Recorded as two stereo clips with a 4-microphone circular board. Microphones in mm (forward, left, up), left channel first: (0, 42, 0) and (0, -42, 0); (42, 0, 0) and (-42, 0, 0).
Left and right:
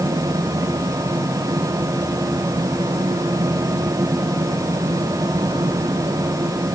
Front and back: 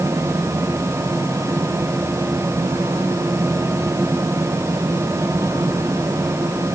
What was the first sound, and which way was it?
Only background noise.